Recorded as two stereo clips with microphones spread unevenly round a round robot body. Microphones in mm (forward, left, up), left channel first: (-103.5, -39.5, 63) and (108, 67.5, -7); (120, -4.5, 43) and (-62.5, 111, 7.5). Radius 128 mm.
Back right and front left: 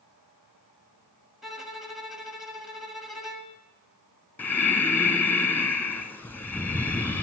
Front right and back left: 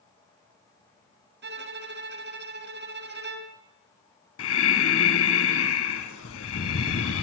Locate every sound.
1.4 s a violin: 110° left, 1.0 m
4.4 s breathing: 75° right, 0.6 m